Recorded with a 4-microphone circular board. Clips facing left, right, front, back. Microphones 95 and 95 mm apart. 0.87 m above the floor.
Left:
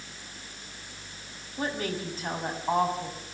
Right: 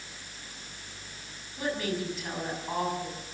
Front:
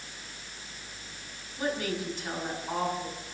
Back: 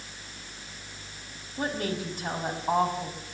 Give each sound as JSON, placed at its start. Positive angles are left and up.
{"t": 1.6, "sound": "a woman speaking", "azimuth_deg": 140, "distance_m": 5.5}